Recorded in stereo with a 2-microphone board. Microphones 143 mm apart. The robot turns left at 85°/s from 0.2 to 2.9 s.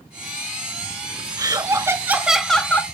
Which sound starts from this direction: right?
Laughter, at 1.4 s.